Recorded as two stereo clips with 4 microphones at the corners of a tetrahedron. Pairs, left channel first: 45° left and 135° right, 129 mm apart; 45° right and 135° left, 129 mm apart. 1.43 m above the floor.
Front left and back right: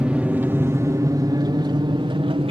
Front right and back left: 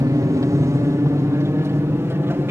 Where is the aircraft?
150° left; by 2.5 s 160° right.